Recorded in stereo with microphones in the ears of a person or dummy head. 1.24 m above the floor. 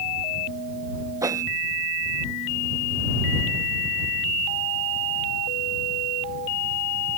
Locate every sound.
1.2 s a whoosh: 15° right (ahead or behind)